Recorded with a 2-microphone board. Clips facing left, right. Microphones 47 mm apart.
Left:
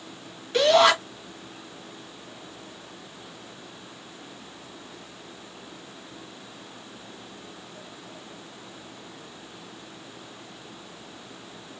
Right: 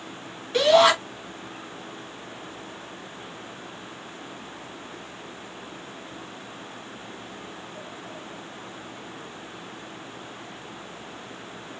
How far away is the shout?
About 1.5 m.